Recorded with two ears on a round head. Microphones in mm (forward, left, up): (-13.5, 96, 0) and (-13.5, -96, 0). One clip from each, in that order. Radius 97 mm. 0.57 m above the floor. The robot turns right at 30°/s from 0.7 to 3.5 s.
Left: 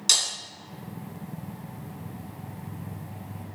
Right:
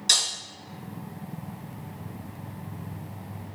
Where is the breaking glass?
25° left (ahead or behind), 3 m.